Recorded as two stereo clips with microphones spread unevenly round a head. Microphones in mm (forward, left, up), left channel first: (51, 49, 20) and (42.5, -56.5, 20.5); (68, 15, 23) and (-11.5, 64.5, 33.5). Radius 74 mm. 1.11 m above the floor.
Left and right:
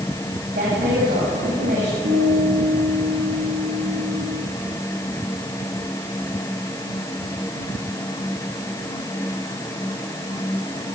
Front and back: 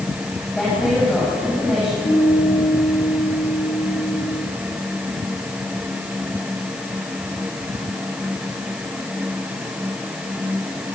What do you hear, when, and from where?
0.5 s a woman speaking: 120° right, 8.5 m; by 1.9 s 125° right, 8.5 m
2.0 s a guitar: 85° right, 10 m